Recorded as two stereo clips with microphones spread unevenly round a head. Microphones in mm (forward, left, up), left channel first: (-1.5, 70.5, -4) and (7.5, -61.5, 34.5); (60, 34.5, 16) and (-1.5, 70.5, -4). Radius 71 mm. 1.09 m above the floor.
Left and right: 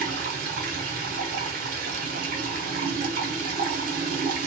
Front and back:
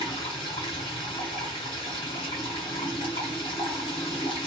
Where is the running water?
60° right, 0.7 m.